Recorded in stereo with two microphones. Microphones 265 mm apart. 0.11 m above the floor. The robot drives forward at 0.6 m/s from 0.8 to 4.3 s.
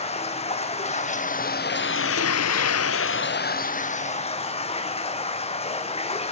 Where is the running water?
25° left (ahead or behind), 1.1 m.